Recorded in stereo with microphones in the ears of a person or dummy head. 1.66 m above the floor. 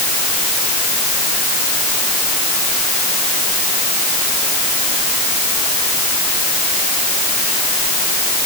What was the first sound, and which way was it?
Only background noise.